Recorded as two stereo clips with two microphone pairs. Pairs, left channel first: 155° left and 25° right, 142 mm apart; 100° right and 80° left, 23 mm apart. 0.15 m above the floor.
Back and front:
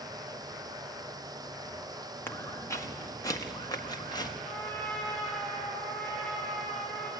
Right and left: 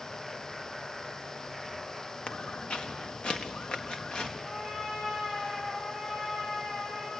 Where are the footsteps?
130° right, 1.7 m; by 4.3 s 140° right, 3 m.